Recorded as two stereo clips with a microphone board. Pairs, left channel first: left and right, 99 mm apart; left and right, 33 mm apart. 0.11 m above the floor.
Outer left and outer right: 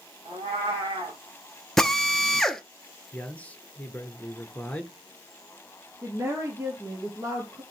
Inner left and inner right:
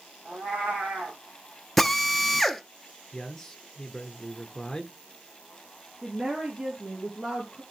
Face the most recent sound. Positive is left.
turn(degrees=-30)  # may be behind; listen again after turning